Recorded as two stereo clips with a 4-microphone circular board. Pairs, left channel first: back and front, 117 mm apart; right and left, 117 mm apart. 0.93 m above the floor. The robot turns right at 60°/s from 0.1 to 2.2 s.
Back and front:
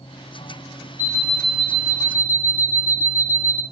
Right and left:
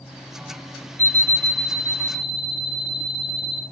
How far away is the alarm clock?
About 0.9 m.